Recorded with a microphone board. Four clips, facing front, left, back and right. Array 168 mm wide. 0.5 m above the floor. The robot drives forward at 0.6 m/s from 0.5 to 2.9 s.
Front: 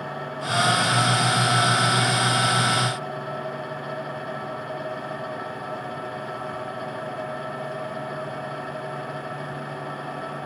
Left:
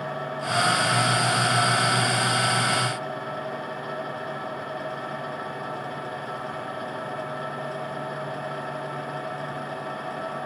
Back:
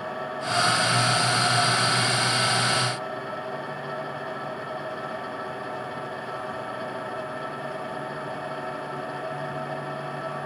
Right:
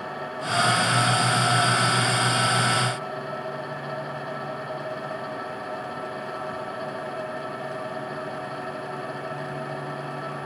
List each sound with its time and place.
Only background noise.